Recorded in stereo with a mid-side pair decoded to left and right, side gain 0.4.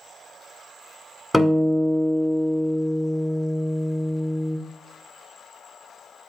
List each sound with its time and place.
1.3 s a guitar: 5° left, 1.7 m